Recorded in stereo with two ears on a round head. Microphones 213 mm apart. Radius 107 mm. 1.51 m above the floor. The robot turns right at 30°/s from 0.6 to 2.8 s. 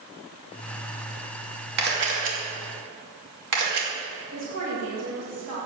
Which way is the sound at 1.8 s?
45° right (ahead or behind).